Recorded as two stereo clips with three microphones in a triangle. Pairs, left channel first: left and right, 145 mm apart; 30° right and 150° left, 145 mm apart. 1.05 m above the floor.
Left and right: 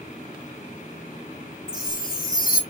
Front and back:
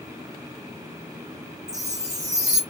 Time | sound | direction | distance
1.7 | a chime | 85° left | 1.0 m